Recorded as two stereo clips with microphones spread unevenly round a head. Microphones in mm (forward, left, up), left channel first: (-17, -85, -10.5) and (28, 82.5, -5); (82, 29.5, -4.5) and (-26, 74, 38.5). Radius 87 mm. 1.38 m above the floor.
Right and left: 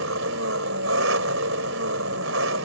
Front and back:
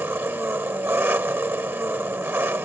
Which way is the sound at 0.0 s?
85° left.